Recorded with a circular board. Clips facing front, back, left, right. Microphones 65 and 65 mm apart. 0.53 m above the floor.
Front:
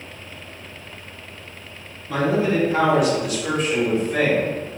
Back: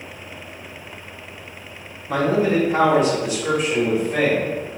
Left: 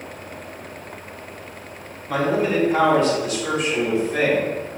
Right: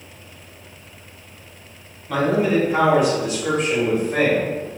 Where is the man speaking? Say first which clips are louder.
Back 2 dB, right 2 dB; 170° left, 1.2 m; by 4.7 s 90° right, 1.3 m.